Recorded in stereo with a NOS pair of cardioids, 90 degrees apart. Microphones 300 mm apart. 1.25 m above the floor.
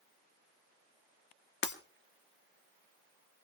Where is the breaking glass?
40° left, 1.9 m.